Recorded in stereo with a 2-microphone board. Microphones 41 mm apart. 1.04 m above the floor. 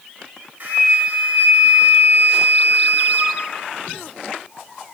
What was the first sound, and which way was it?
A flute, 50° right (ahead or behind).